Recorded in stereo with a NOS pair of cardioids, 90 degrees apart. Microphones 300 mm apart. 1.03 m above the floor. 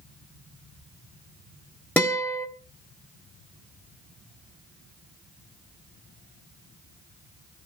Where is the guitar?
5° left, 2 m.